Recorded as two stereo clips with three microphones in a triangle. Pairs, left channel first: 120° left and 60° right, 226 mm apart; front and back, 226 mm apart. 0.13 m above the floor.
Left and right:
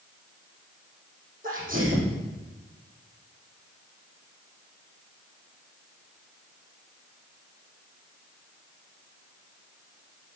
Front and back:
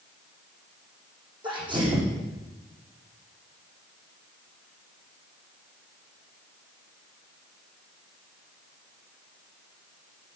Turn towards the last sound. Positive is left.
turn(degrees=-110)